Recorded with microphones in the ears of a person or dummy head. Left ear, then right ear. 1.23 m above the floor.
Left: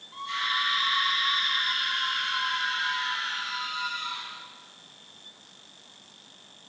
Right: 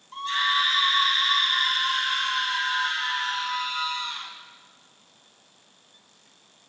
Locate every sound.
0.1 s a scream: 35° right (ahead or behind), 1.3 m